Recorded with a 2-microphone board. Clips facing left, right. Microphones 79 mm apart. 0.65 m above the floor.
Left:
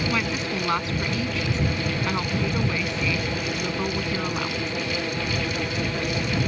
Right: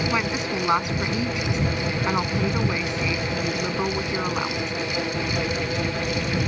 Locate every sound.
0.1 s a woman speaking: 20° right (ahead or behind)